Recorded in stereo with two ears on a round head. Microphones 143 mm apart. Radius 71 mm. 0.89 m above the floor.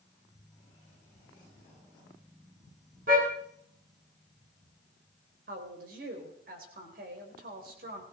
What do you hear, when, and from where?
3.1 s a car horn: 55° right (ahead or behind), 5.5 m
5.5 s a woman speaking: 60° right (ahead or behind), 4 m